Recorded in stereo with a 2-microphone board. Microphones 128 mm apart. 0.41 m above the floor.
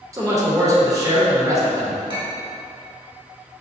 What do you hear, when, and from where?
0.1 s a man speaking: 25° right (ahead or behind), 0.9 m
2.1 s a clink: 40° right (ahead or behind), 0.9 m